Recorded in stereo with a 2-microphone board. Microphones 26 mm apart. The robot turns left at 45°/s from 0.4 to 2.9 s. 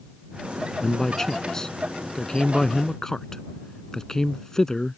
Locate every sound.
0.8 s a man speaking: 15° left (ahead or behind); by 5.0 s 20° left (ahead or behind)